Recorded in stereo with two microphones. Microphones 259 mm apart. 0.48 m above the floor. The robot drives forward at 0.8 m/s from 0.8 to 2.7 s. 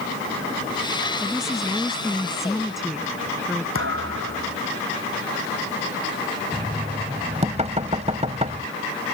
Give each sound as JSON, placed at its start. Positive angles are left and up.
{"t": 1.2, "sound": "a woman speaking", "side_deg": 0}
{"t": 3.8, "sound": "a thud", "side_deg": -55}
{"t": 6.5, "sound": "knocking", "side_deg": -25}